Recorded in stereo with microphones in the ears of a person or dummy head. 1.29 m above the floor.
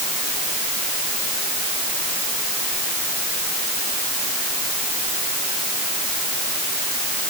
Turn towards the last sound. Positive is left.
No sound to turn to.